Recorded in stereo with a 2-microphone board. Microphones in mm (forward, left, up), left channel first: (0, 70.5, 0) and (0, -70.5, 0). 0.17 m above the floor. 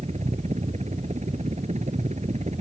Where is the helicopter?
55° right (ahead or behind).